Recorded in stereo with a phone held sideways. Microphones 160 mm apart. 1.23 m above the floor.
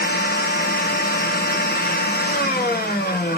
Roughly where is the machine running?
Left.